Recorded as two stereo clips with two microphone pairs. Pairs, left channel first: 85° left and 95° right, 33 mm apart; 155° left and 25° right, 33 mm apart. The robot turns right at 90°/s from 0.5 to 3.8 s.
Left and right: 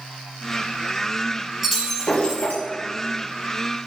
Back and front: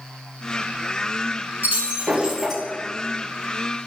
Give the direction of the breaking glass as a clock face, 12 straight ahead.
12 o'clock.